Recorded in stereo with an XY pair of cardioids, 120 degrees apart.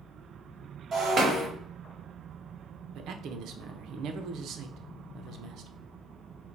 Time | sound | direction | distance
0.9 | breaking glass | 40° right | 1.8 m
3.0 | a man speaking | 65° right | 0.7 m